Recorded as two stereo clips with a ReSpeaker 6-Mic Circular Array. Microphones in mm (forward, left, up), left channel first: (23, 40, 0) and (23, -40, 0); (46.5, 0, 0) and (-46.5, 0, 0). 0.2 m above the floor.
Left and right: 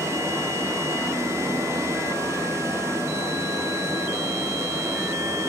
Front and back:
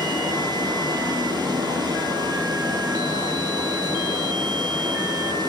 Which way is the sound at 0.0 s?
140° right.